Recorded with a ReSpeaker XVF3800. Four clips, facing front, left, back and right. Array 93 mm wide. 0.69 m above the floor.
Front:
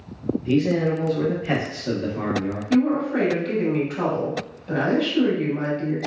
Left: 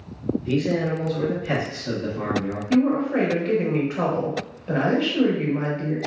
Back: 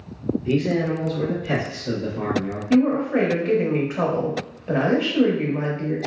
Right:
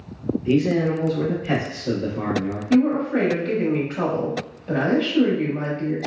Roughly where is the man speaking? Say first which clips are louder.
Right 4 dB, front 2 dB; right.